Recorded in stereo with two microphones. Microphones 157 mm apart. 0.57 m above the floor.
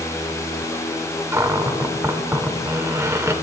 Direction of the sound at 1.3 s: 15° right (ahead or behind).